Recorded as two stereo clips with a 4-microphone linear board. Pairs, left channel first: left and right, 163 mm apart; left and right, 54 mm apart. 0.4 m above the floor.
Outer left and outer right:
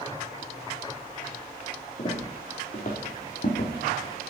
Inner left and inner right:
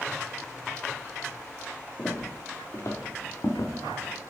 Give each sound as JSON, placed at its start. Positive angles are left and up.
{"t": 2.0, "sound": "footsteps", "side_deg": 40, "distance_m": 4.0}